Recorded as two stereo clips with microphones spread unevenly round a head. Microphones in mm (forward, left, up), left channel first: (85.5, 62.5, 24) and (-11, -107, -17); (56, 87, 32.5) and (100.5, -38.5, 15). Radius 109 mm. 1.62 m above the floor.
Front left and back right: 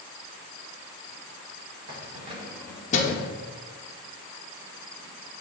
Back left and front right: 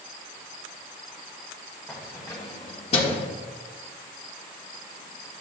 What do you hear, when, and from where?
1.9 s keys jangling: 170° right, 1.4 m; by 3.3 s 75° left, 1.3 m